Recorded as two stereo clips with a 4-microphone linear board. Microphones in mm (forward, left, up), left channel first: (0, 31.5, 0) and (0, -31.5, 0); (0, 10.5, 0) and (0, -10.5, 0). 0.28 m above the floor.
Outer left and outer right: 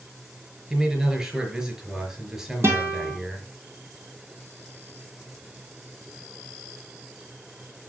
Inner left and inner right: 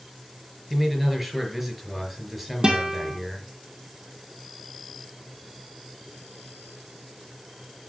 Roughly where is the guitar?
Right.